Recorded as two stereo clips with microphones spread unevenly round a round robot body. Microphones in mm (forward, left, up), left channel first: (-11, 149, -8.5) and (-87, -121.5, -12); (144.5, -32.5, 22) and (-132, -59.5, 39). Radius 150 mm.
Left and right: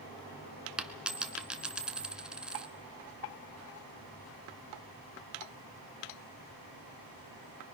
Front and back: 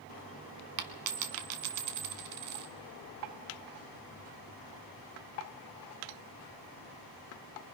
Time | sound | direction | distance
0.8 | a dropped coin | 165° left | 1.6 m